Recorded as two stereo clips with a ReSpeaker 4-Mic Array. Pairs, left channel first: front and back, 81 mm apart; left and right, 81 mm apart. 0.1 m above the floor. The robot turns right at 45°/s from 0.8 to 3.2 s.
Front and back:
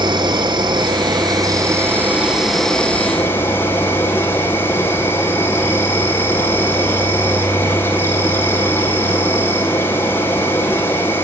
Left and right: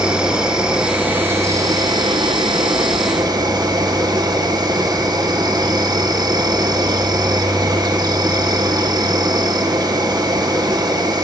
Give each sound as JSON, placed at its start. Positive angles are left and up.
{"t": 0.0, "sound": "an insect", "azimuth_deg": -170, "distance_m": 4.0}